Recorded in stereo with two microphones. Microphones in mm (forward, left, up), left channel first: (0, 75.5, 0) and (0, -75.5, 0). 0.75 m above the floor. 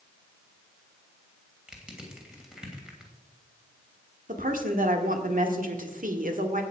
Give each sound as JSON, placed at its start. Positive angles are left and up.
{"t": 1.7, "sound": "crushing", "side_deg": -5, "distance_m": 2.5}
{"t": 4.3, "sound": "a woman speaking", "side_deg": -70, "distance_m": 1.6}